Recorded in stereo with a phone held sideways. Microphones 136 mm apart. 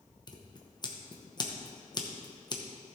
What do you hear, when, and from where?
0.3 s scissors: 30° left (ahead or behind), 1.0 m